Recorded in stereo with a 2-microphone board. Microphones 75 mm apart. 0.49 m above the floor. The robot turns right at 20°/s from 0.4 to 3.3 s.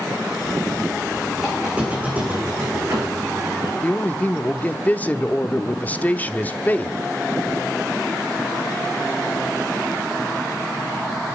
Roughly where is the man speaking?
Left.